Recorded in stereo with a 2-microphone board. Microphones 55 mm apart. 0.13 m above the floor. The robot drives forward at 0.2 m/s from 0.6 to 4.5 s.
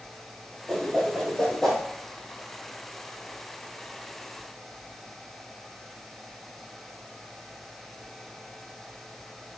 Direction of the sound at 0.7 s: 5° left (ahead or behind).